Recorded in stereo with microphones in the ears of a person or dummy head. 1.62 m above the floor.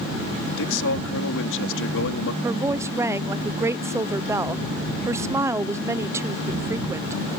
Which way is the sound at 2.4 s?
15° right (ahead or behind).